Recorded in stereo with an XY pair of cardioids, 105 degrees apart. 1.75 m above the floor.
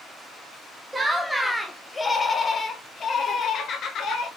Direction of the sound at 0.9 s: 15° right.